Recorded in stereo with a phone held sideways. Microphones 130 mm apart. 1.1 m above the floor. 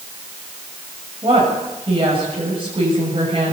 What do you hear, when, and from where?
1.2 s a woman speaking: 40° right (ahead or behind), 7 m